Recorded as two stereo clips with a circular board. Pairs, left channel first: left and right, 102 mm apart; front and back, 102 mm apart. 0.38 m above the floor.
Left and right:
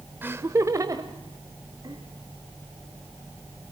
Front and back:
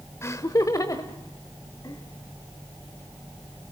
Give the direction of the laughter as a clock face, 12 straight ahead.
1 o'clock.